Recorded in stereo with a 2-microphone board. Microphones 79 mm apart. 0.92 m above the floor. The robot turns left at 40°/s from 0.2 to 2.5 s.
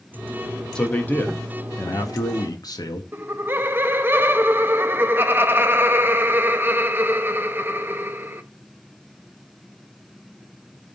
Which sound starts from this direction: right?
Laughter, at 3.1 s.